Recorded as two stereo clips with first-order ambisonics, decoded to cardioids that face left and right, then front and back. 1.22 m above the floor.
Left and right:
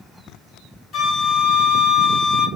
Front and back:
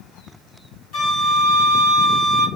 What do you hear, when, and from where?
0.9 s a flute: 30° left, 2 m